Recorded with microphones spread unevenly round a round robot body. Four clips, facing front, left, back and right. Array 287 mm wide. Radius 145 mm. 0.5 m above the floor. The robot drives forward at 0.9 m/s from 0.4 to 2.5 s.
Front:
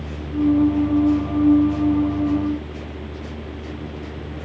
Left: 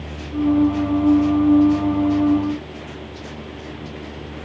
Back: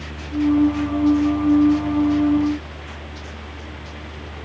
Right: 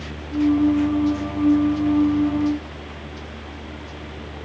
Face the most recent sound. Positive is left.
No sound to turn to.